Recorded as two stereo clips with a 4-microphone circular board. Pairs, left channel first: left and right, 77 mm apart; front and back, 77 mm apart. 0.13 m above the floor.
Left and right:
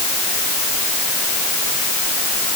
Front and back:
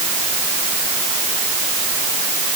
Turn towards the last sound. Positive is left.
No sound to turn to.